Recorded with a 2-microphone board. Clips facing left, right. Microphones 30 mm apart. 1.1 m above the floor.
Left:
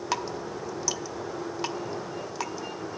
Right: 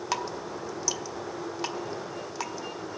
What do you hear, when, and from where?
0.1 s dripping: centre (ahead or behind), 0.9 m